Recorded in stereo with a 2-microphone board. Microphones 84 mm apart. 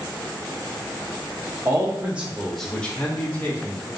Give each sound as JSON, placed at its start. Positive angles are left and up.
{"t": 1.6, "sound": "a man speaking", "side_deg": -35, "distance_m": 0.6}